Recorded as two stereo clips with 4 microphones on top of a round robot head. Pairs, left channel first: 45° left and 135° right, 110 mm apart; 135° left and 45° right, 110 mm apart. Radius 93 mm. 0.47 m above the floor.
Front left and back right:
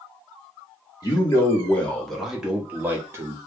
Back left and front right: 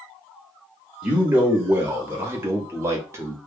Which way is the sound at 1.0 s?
25° left.